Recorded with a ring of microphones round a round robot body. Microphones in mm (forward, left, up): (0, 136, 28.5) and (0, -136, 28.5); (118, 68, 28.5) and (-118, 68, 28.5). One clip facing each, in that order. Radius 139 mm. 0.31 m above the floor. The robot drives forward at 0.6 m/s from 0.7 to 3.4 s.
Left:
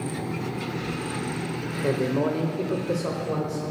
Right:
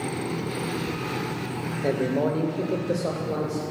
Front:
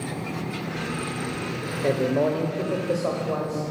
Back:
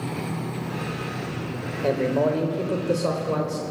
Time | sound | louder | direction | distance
1.8 | a man speaking | even, even | 35° left | 1.0 m